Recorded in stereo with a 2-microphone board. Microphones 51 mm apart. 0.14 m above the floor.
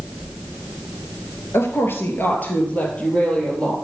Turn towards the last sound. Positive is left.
turn(degrees=15)  # may be behind; listen again after turning